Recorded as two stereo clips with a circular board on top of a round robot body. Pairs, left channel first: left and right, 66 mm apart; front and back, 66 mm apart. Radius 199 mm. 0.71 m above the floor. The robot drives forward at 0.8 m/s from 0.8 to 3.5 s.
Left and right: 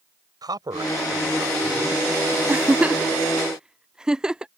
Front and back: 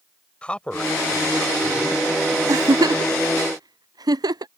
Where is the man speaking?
75° right; by 2.0 s 90° right.